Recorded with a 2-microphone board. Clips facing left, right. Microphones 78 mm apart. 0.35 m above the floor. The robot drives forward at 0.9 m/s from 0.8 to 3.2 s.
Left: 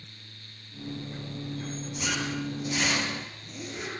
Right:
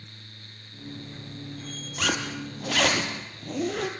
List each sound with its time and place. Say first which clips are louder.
2.0 s a zipper: right 3 dB; 80° right, 3 m